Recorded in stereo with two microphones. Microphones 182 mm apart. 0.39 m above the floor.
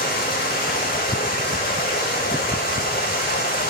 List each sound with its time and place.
0.0 s running water: 55° left (ahead or behind), 5 m